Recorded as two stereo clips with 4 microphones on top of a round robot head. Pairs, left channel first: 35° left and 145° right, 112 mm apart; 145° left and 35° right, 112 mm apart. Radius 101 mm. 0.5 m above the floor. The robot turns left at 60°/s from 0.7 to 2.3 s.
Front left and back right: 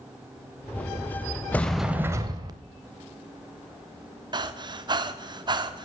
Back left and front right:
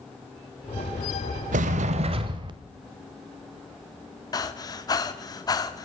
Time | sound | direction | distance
1.5 | a sliding door | 40° right | 0.6 m
4.3 | breathing | 175° right | 1.0 m